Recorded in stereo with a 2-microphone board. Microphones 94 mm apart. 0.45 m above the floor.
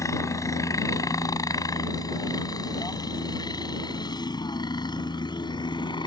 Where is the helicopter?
35° left (ahead or behind); by 6.1 s 50° left (ahead or behind).